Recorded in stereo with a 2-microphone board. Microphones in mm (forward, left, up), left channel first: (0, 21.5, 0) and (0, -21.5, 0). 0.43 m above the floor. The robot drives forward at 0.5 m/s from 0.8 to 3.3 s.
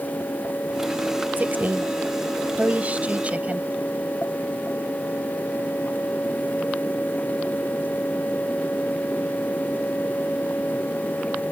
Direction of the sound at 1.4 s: 45° right (ahead or behind).